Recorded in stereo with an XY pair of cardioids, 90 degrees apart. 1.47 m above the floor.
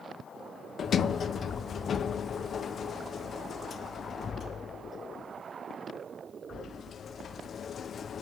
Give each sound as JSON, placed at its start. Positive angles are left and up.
{"t": 0.8, "sound": "a sliding door", "azimuth_deg": 50, "distance_m": 0.6}